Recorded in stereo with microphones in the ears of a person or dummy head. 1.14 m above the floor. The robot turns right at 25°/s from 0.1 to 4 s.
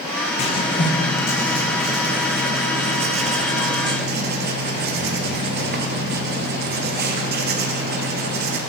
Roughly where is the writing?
Behind left.